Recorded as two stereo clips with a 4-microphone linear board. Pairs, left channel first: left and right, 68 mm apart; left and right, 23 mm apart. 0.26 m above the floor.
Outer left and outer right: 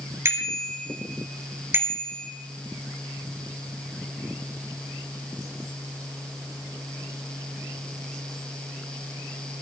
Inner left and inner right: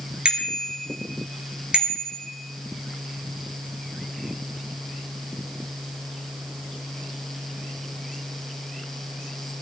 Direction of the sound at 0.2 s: 35° right (ahead or behind).